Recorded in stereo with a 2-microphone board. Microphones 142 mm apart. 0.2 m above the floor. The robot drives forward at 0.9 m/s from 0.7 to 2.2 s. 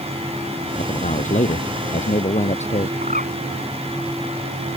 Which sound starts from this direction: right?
A bird, at 3.0 s.